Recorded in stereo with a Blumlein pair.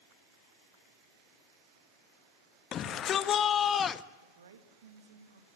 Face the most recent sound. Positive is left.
turn(degrees=-65)